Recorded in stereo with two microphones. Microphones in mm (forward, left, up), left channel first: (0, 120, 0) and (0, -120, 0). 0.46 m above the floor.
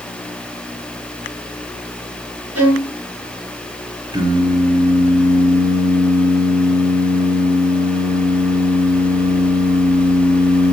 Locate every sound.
2.5 s a violin: 80° right, 5 m
4.1 s singing: 20° right (ahead or behind), 4 m